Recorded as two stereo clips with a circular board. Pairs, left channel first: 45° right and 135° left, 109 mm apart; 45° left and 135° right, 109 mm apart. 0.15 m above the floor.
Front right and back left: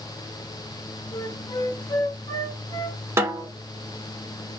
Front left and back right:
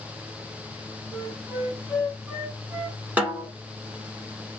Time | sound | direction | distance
1.1 | a flute | 65° right | 2 m
3.2 | a snare drum | 165° left | 1.4 m